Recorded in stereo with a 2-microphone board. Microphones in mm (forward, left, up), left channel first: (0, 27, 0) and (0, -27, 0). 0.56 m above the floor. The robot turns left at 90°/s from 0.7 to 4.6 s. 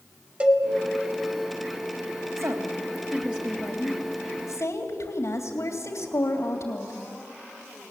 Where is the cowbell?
20° right (ahead or behind), 1.6 m.